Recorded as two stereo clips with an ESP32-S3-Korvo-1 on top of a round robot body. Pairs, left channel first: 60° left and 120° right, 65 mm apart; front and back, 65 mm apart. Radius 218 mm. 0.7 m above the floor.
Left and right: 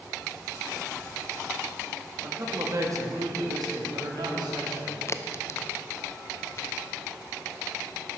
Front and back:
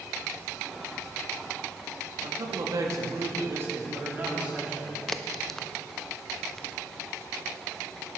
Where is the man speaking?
175° right, 2 m; by 5.0 s 105° right, 3.5 m.